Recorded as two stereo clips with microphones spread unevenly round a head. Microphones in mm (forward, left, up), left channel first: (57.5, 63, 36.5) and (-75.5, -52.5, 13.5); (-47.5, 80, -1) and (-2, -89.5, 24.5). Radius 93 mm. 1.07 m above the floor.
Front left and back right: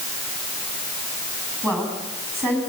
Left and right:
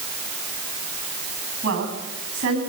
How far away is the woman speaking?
About 9 m.